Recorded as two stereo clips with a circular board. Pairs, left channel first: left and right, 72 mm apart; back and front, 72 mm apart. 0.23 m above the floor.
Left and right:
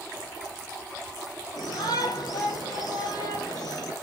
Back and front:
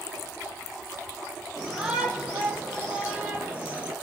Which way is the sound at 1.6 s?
85° left.